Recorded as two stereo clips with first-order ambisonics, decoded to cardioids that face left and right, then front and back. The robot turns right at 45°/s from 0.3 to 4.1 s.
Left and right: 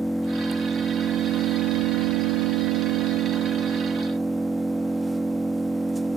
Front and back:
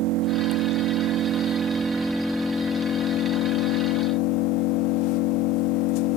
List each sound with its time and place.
0.0 s an engine running: straight behind, 1.2 m; by 6.2 s 10° right, 1.2 m